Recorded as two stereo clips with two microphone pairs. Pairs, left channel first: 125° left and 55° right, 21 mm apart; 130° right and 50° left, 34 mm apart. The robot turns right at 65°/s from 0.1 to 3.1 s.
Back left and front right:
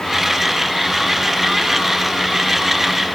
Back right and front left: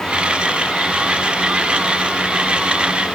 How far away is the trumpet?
I don't hear a trumpet.